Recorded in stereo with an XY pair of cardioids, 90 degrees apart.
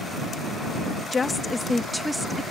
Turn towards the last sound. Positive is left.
turn(degrees=-5)